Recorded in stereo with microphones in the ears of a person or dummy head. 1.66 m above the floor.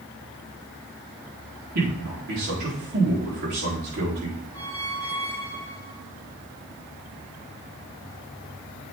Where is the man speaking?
55° right (ahead or behind), 4.5 m.